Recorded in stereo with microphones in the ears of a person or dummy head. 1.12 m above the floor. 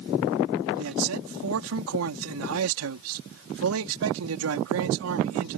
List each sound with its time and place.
0.8 s a man speaking: 70° right (ahead or behind)